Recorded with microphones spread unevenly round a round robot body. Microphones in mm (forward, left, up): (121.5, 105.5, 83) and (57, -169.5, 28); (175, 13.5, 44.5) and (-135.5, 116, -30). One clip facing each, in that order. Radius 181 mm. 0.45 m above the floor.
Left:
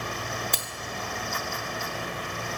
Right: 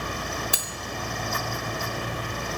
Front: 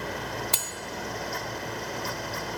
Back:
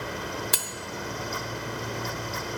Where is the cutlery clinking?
165° right, 0.7 m.